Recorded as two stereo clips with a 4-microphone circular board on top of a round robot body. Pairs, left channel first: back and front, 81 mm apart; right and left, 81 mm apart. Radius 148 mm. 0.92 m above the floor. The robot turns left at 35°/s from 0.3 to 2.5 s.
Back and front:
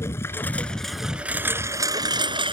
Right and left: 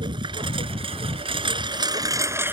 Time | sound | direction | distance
0.0 | a lawn mower | 120° left | ?